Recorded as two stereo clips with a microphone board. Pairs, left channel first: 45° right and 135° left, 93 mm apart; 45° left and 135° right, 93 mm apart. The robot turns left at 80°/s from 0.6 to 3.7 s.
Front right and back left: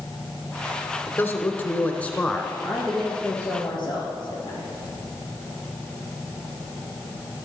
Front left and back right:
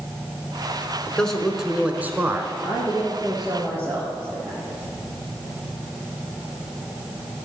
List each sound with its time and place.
1.1 s a man speaking: 15° right, 1.1 m; by 2.5 s 130° right, 1.1 m
2.6 s a woman speaking: 65° left, 2.5 m; by 4.7 s 20° right, 2.5 m